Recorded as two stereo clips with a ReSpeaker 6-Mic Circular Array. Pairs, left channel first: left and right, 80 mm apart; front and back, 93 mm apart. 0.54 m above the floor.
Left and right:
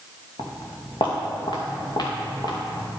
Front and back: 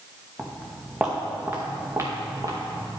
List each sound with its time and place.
0.4 s footsteps: 90° left, 1.9 m; by 3.0 s 135° left, 2.5 m